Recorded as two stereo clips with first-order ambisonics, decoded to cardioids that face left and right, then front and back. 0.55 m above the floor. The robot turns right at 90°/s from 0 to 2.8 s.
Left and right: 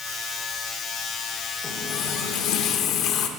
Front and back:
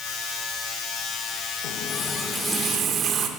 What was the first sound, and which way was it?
A running tap, 25° left.